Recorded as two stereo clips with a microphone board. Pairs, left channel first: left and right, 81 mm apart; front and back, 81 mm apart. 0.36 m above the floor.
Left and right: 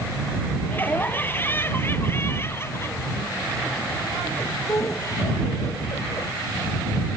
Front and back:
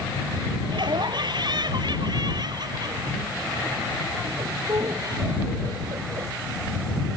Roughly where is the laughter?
Behind left.